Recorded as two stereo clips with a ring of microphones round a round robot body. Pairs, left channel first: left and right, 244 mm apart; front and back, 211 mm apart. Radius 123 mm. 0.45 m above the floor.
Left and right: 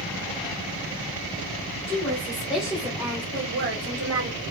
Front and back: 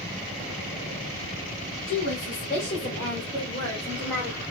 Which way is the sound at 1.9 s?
15° left.